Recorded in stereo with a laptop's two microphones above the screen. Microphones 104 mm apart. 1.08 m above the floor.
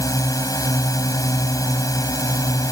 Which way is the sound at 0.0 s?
35° left (ahead or behind).